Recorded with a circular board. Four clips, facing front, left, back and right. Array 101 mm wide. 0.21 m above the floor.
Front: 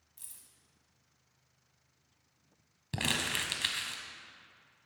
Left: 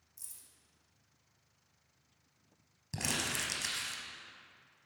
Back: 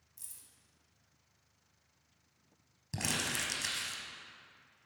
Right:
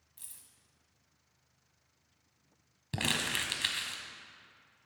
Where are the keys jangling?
65° right, 1.0 m.